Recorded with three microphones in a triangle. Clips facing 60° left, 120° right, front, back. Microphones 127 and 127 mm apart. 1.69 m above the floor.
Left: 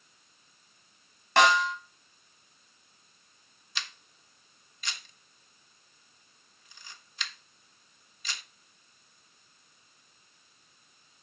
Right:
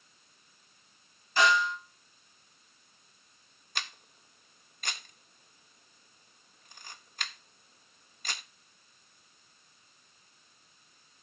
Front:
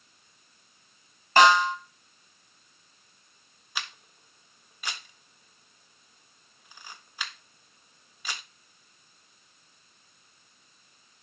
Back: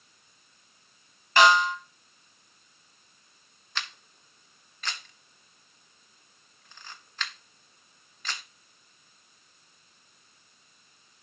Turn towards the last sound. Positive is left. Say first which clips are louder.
# right 2 dB, even
turn(degrees=-80)